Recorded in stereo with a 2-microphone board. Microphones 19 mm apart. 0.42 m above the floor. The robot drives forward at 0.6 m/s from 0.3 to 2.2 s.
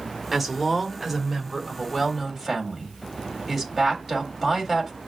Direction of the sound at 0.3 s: 10° right (ahead or behind).